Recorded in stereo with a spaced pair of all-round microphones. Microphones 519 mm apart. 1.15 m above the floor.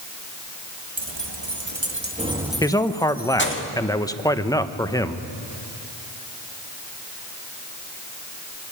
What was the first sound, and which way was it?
Keys jangling, 60° right (ahead or behind).